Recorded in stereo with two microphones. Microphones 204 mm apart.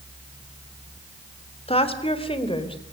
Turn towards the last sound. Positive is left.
turn(degrees=25)  # may be behind; listen again after turning